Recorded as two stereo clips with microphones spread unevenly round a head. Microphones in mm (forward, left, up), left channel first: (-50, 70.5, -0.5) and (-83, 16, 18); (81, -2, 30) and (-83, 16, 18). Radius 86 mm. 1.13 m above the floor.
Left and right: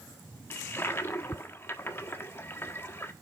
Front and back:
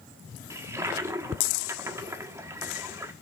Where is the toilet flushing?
100° left, 1.2 m.